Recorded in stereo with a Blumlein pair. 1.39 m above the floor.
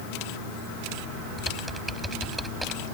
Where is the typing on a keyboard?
5° right.